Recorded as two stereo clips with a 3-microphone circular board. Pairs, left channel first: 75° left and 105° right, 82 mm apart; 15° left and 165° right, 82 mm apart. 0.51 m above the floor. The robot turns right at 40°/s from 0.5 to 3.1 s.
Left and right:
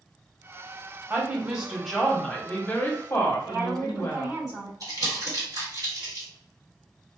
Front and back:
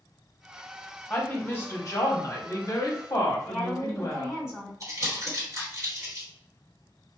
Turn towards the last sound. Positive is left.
turn(degrees=-130)